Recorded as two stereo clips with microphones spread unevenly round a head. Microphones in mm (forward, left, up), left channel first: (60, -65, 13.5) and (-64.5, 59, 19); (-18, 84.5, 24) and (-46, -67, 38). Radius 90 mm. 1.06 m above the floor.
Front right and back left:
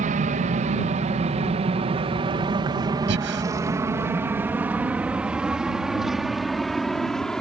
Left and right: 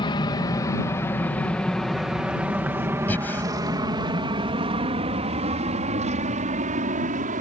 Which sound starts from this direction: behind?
Breathing, at 3.1 s.